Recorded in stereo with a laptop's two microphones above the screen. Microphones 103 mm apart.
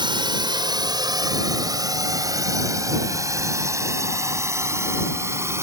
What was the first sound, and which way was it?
A drone, 50° right (ahead or behind).